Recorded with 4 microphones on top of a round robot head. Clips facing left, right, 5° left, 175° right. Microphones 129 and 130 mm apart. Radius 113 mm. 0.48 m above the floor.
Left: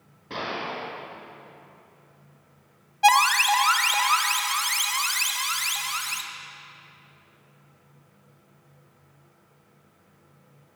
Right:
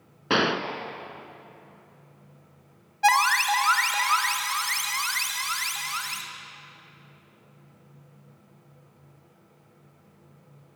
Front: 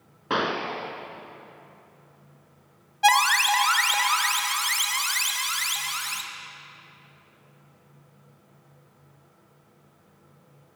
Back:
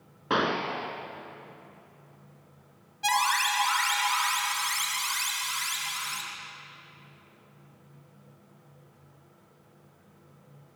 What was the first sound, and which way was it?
A gunshot, 85° right.